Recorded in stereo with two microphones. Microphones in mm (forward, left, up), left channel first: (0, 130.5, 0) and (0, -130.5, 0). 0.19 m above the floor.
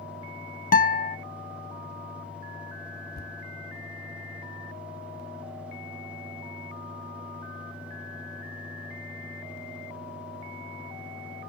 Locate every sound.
0.7 s a guitar: 35° left (ahead or behind), 0.6 m
3.1 s a thud: 35° left (ahead or behind), 1.1 m